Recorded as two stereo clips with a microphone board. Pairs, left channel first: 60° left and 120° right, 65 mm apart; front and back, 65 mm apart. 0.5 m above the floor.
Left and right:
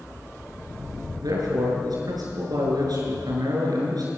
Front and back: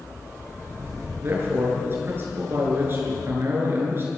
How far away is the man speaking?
About 8 m.